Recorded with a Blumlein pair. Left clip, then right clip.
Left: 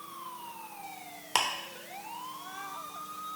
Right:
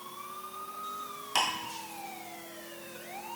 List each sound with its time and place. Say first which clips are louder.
1.4 s ticking: even; 70° left, 0.5 m